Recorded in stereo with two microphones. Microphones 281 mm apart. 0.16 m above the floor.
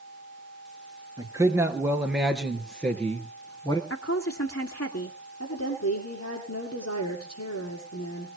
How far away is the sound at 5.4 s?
About 6 m.